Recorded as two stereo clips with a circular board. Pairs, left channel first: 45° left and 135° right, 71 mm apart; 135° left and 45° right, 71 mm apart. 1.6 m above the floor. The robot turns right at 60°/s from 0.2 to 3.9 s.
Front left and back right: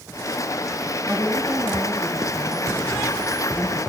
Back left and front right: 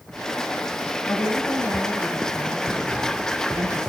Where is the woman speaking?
160° left, 2.0 m; by 3.8 s 35° right, 2.0 m.